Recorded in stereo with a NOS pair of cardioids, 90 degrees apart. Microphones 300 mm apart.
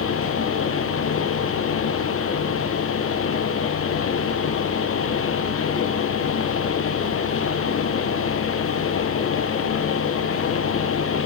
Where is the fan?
45° left, 1.1 m.